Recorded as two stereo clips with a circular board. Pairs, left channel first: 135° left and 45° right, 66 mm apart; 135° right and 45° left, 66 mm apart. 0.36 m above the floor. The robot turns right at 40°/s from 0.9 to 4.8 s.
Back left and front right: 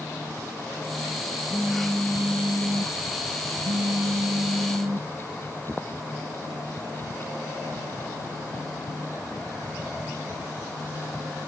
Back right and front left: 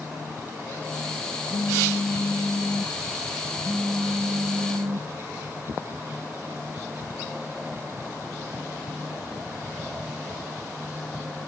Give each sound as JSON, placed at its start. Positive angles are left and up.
{"t": 1.5, "sound": "a phone buzzing", "azimuth_deg": -155, "distance_m": 1.7}